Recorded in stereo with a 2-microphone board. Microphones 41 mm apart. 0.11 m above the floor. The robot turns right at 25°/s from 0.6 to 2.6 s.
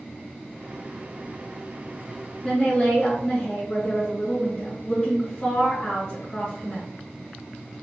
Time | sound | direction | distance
2.4 | a woman speaking | 15° left (ahead or behind) | 1.3 m